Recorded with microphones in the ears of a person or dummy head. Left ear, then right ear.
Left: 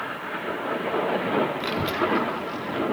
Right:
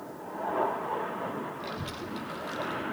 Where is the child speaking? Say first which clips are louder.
Left 12 dB; 45° left (ahead or behind), 0.7 m; by 2.9 s 40° right (ahead or behind), 1.2 m.